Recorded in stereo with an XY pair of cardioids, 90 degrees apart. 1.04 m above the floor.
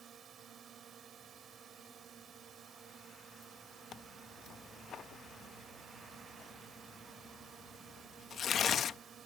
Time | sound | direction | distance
0.0 | a drone | 65° right | ?
3.9 | tearing paper | 65° left | ?